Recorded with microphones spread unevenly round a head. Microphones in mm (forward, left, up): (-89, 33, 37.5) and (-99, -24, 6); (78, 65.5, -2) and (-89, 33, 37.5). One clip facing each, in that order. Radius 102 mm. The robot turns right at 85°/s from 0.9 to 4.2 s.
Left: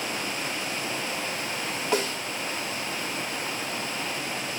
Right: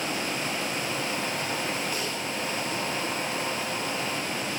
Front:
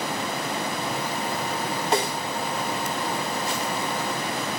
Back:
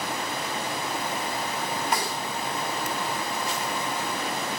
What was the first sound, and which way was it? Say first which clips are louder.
A snare drum: left 5 dB, front 8 dB; 75° left.